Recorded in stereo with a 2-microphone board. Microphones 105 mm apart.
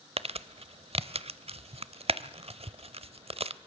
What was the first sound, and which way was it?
Crumpling, 70° right (ahead or behind).